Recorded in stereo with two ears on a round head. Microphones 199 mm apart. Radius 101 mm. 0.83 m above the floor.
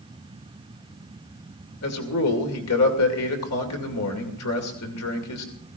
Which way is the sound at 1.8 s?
80° left.